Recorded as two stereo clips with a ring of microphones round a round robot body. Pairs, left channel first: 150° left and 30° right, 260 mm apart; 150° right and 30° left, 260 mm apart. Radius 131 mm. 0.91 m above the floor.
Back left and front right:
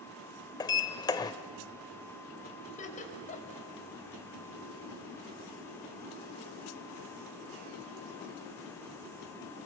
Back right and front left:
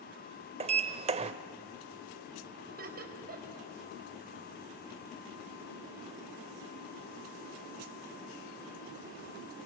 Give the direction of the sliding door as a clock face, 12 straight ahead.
9 o'clock.